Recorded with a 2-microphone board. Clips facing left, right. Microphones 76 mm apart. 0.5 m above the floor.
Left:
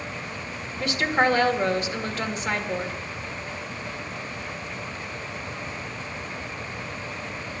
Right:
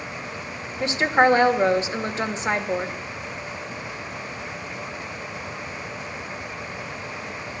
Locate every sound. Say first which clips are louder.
0.8 s a woman speaking: right 4 dB; 20° right (ahead or behind), 1.3 m